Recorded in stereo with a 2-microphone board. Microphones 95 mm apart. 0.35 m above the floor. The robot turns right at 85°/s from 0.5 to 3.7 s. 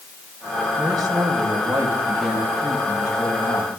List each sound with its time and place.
0.8 s a man speaking: 140° right, 2.5 m; by 3.7 s 110° left, 2.5 m